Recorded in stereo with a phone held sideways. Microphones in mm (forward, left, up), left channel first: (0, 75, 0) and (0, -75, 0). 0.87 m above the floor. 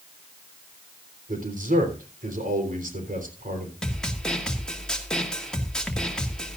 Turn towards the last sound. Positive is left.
turn(degrees=5)  # may be behind; listen again after turning